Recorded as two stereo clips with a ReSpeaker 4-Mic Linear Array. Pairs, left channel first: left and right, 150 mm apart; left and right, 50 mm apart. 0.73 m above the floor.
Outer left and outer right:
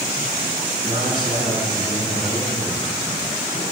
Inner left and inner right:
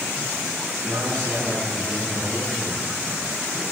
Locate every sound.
0.8 s a man speaking: 80° right, 6 m